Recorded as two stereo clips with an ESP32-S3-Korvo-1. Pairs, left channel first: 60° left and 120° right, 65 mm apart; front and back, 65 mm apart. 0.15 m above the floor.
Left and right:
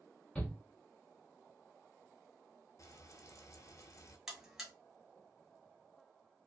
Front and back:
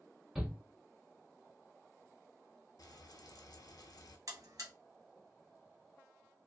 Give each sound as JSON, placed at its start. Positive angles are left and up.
{"t": 0.3, "sound": "a shout", "azimuth_deg": 110, "distance_m": 1.1}
{"t": 2.8, "sound": "frying", "azimuth_deg": 25, "distance_m": 0.6}
{"t": 4.3, "sound": "a buzzer", "azimuth_deg": 155, "distance_m": 1.0}